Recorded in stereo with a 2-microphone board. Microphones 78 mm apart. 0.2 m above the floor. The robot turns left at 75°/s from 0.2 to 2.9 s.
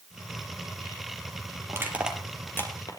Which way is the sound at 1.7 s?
40° right (ahead or behind).